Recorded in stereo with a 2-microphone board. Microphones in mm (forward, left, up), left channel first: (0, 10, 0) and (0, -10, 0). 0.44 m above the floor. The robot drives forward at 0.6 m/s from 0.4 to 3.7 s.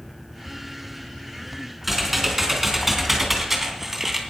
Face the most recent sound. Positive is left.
turn(degrees=-15)  # may be behind; listen again after turning